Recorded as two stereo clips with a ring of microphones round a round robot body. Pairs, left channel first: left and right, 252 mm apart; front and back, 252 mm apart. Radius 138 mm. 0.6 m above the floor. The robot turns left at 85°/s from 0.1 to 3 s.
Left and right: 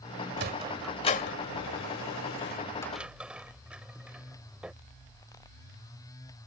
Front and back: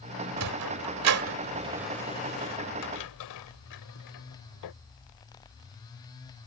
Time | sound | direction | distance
0.4 | a sliding door | 140° right | ?